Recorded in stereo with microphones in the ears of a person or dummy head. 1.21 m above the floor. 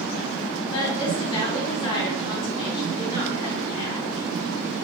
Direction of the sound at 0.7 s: 30° left (ahead or behind).